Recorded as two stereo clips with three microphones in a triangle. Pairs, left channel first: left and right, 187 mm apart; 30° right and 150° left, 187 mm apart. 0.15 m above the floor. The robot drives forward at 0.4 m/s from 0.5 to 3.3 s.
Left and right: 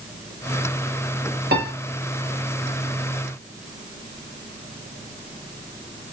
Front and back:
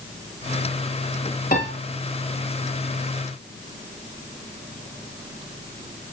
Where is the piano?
65° right, 3 m.